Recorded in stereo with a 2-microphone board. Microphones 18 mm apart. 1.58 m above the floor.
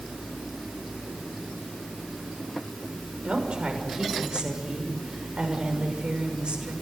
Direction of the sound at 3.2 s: 65° right (ahead or behind).